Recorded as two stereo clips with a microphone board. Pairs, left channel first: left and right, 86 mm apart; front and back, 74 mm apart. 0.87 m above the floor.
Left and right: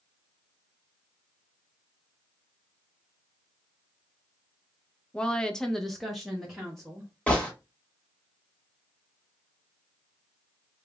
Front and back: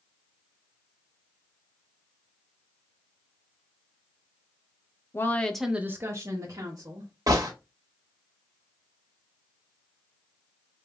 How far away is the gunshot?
About 1.2 m.